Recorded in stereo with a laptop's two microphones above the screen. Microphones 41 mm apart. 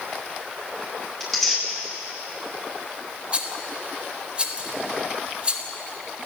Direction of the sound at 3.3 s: 30° right (ahead or behind).